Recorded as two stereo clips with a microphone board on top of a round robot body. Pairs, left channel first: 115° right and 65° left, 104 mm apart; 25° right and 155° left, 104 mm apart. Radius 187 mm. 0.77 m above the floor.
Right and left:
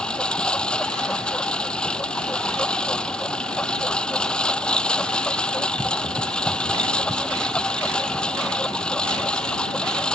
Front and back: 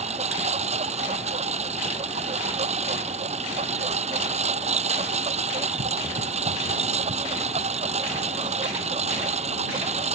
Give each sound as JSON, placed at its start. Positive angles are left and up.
{"t": 0.0, "sound": "a lawn mower", "azimuth_deg": 165}